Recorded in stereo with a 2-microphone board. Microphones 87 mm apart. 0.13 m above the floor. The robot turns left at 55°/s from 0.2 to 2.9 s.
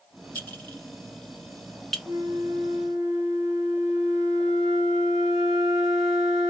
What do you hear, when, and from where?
0.3 s a clink: 20° left (ahead or behind), 0.9 m; by 2.0 s centre (ahead or behind), 0.9 m
2.0 s a flute: 140° right, 2.0 m; by 6.5 s 175° left, 2.0 m